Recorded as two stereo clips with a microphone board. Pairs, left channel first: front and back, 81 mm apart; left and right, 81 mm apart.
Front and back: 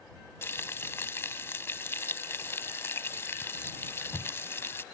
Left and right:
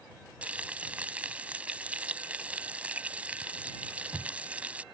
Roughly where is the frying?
Ahead right.